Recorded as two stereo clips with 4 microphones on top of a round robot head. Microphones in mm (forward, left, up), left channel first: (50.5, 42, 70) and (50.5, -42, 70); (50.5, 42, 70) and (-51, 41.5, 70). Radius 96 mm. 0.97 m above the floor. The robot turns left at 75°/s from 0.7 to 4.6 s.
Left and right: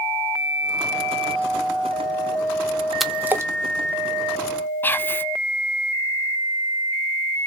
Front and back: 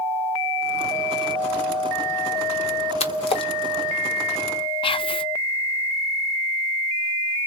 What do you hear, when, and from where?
3.0 s a splash: straight ahead, 0.9 m; by 3.5 s 40° right, 0.9 m
4.8 s whispering: 25° left, 0.6 m